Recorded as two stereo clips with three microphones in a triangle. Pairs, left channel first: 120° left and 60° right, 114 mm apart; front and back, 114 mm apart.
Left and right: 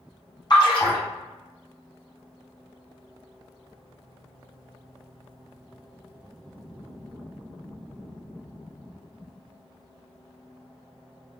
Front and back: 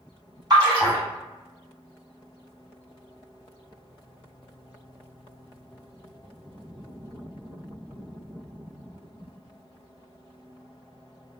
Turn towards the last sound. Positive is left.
turn(degrees=150)